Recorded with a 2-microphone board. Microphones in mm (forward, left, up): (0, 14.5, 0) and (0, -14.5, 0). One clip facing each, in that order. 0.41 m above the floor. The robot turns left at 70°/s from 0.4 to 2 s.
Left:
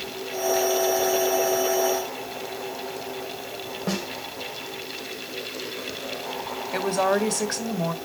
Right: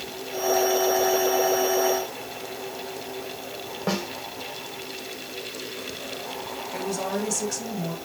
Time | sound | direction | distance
3.9 | a snare drum | 20° right (ahead or behind) | 2.0 m
6.7 | a woman speaking | 55° left (ahead or behind) | 1.2 m